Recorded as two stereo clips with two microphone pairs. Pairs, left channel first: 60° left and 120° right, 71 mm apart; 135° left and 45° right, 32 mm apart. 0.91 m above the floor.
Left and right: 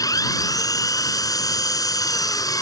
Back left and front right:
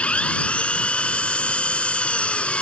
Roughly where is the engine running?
Left.